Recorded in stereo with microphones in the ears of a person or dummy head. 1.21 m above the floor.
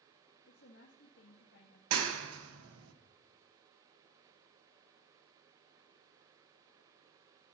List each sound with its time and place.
0.5 s a woman speaking: 70° left (ahead or behind), 2 m
1.9 s a clap: 80° right, 1.3 m